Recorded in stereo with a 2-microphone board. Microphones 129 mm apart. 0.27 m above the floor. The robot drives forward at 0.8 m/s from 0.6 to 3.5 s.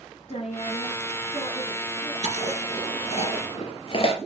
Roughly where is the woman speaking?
Left.